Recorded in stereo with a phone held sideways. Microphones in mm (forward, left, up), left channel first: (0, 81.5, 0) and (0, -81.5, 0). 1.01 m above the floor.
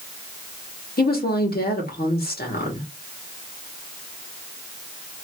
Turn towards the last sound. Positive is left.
turn(degrees=70)  # may be behind; listen again after turning